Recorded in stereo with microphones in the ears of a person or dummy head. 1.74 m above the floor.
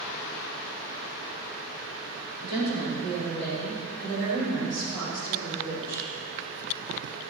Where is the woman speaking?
35° left (ahead or behind), 3 m; by 6.1 s 10° left (ahead or behind), 4.5 m.